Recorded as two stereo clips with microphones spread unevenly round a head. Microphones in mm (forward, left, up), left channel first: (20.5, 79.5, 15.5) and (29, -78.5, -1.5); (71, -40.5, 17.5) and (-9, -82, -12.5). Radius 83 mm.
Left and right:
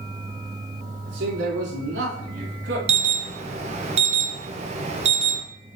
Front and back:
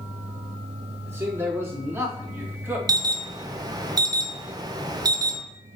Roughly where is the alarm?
Behind right.